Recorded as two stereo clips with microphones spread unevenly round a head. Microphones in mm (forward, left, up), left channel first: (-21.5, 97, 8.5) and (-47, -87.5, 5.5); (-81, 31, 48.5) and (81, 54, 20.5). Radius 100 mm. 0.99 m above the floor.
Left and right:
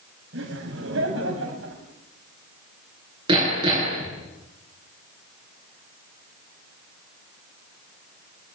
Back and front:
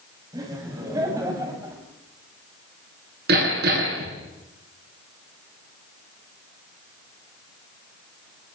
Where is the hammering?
25° right, 9.5 m.